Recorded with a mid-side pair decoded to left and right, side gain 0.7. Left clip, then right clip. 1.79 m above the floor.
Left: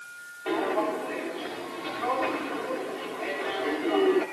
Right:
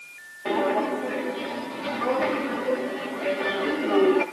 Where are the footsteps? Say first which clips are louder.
Right 3 dB; 70° right, 8 m.